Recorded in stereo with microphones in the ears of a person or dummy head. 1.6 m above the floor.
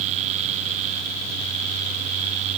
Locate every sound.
Only background noise.